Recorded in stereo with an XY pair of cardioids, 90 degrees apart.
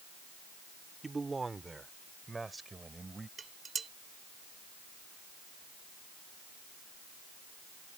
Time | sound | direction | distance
1.0 | a man speaking | 25° right | ?
3.4 | dishes clattering | 45° right | ?